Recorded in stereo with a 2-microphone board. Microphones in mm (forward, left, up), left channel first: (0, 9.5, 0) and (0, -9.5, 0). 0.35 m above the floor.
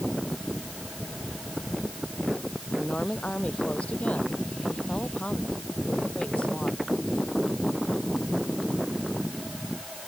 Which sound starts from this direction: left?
A woman speaking, at 2.8 s.